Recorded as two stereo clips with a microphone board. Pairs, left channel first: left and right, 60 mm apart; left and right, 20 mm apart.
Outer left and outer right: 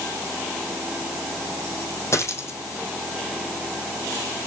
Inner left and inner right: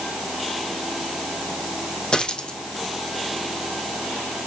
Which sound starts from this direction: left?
A dropped coin, at 2.1 s.